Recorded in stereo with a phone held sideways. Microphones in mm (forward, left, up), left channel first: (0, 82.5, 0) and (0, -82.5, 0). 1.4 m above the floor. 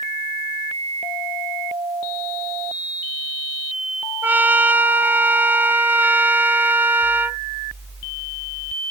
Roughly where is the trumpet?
Centre.